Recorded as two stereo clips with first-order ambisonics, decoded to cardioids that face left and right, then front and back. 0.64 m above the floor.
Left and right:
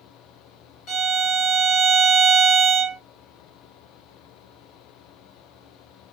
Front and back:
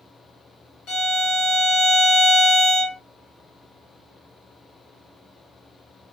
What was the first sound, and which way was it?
A violin, 45° left.